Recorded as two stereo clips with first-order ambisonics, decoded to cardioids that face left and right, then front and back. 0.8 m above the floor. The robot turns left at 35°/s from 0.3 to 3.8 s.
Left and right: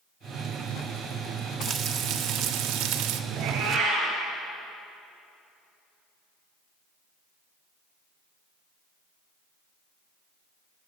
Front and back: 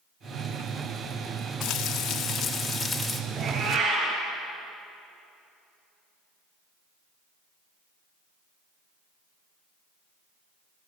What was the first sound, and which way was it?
Frying, 35° right.